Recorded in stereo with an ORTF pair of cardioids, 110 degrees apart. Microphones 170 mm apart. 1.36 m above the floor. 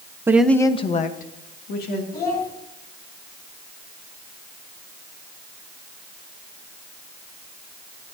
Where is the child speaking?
65° left, 5.5 m.